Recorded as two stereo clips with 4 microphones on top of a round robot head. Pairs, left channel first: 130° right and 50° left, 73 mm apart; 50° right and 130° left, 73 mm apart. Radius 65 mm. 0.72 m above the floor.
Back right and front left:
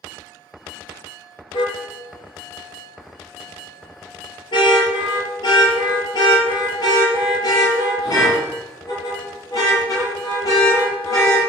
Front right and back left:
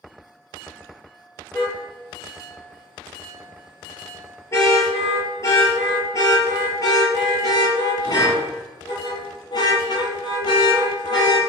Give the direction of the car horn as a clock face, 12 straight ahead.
4 o'clock.